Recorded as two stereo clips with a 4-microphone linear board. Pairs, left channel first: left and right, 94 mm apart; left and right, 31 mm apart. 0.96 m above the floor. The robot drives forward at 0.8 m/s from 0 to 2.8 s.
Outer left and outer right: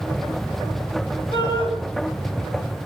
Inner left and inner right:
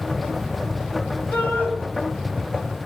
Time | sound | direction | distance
1.3 | a shout | 70° left (ahead or behind) | 5.5 m